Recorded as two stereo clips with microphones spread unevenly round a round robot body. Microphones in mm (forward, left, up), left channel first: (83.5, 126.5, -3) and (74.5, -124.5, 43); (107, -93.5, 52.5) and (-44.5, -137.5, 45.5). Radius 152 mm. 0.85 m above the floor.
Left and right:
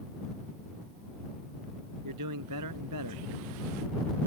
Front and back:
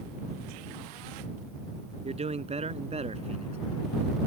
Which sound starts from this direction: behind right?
A man speaking, at 2.0 s.